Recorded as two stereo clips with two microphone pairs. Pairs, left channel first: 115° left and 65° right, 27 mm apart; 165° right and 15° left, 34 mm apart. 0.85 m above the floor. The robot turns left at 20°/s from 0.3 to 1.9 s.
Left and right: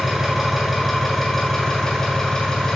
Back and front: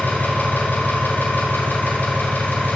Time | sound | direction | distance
0.0 | an engine running | 145° right | 2.5 m